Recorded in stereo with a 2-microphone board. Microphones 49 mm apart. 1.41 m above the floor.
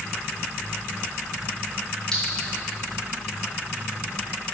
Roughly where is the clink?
Centre.